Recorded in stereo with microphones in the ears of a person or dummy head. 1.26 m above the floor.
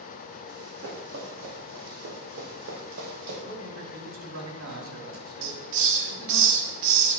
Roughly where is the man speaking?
Right.